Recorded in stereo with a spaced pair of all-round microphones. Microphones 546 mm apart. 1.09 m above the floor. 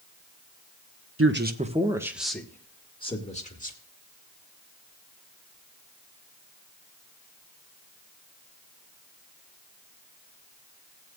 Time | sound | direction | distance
1.2 | a man speaking | 25° right (ahead or behind) | 1.0 m